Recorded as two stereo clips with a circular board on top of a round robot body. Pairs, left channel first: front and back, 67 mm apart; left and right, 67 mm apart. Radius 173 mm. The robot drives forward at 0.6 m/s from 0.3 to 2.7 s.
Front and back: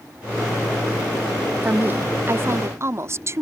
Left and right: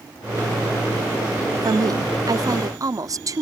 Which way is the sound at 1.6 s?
115° right.